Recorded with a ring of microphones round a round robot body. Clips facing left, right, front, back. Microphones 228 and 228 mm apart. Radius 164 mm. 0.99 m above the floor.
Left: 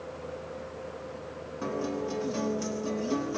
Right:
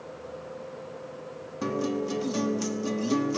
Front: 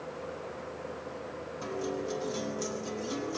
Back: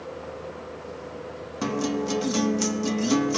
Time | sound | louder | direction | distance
1.6 | a guitar | right 4 dB, back 9 dB | 155° right | 0.9 m